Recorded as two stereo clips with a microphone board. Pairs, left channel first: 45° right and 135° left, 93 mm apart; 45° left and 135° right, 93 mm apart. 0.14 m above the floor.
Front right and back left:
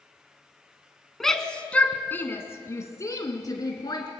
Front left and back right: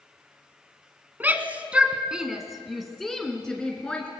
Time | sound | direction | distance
1.2 | a shout | 125° right | 1.3 m